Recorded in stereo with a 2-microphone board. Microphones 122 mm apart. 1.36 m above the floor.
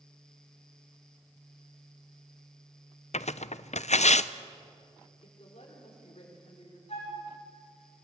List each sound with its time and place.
3.1 s tearing paper: 65° left (ahead or behind), 0.5 m
5.2 s a woman speaking: 60° left (ahead or behind), 5 m
6.9 s a flute: 55° left (ahead or behind), 7 m